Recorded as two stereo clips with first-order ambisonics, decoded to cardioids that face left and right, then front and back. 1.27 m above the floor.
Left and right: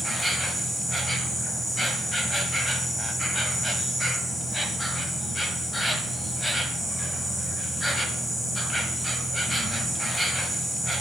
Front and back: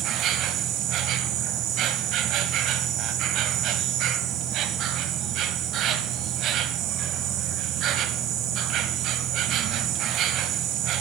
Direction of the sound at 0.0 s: 170° left.